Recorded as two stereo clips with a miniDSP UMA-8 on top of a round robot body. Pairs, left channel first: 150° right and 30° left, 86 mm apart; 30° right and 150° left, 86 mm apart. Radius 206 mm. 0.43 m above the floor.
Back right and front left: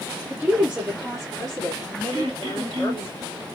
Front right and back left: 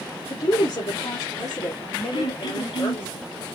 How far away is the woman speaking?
About 1.6 m.